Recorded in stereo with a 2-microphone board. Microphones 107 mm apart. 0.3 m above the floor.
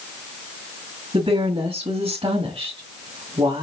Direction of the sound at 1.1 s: 55° right (ahead or behind).